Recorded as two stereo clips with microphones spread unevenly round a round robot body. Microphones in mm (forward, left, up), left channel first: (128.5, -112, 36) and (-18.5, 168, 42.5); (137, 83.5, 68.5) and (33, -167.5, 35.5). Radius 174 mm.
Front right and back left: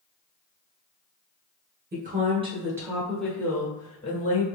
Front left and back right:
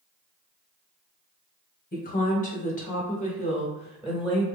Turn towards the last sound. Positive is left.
turn(degrees=-10)